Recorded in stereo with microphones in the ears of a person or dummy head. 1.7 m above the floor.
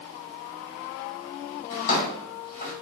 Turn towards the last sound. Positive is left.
turn(degrees=40)  # may be behind; listen again after turning